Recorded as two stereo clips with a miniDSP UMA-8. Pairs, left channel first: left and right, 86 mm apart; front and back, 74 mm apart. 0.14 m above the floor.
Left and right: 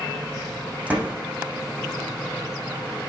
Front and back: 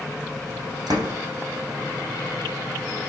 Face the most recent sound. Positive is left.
turn(degrees=-165)